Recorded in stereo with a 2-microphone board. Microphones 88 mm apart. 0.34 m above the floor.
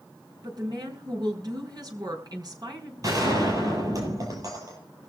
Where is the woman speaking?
50° right (ahead or behind), 4.5 m.